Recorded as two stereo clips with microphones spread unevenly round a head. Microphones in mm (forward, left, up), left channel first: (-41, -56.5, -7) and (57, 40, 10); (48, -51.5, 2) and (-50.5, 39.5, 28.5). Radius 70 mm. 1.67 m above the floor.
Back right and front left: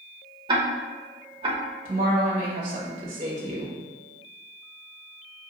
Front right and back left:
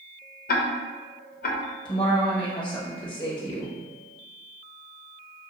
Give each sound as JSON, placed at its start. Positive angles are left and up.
{"t": 0.5, "sound": "ticking", "azimuth_deg": -15, "distance_m": 0.6}
{"t": 1.9, "sound": "a woman speaking", "azimuth_deg": 20, "distance_m": 1.3}